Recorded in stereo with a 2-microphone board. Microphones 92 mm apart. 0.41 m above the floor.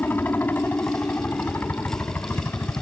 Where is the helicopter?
20° left (ahead or behind).